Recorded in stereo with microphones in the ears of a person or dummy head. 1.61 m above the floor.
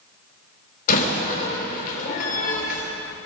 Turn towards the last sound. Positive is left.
turn(degrees=50)  # may be behind; listen again after turning